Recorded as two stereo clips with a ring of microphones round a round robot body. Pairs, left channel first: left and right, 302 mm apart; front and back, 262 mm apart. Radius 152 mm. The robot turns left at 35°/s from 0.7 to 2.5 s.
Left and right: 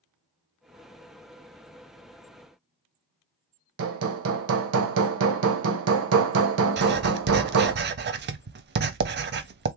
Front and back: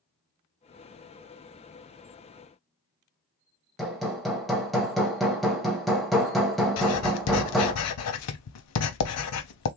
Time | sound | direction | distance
3.8 | hammering | 90° right | 0.7 m
6.8 | writing | 35° right | 0.5 m